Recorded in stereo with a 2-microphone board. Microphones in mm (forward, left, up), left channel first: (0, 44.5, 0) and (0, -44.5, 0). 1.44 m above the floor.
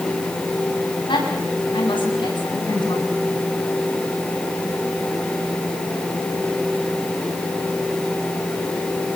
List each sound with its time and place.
1.1 s a woman speaking: 65° left (ahead or behind), 9.5 m